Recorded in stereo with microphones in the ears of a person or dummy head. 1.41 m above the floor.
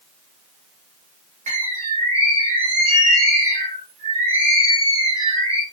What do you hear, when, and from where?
1.5 s a bird: 45° right (ahead or behind), 1.2 m